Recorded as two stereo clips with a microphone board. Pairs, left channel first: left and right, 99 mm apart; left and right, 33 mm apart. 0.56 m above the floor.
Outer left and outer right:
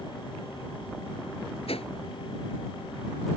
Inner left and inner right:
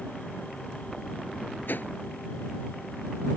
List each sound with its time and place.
1.7 s a whoosh: 65° left (ahead or behind)